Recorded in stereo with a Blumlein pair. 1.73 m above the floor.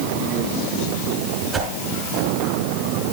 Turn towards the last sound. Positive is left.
turn(degrees=-15)